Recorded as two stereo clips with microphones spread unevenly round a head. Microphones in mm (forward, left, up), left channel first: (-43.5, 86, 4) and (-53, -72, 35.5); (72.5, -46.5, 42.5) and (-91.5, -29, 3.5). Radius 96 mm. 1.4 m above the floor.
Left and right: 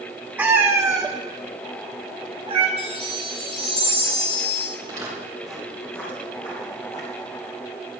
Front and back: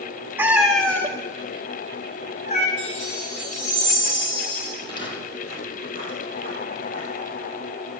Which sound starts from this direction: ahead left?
A chime, at 2.8 s.